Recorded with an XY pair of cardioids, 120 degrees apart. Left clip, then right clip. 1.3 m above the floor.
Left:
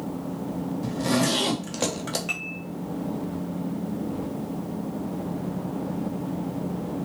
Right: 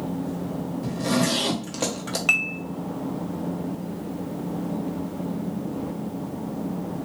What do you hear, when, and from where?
0.8 s a zipper: 10° left, 0.8 m
2.3 s dishes clattering: 60° right, 0.8 m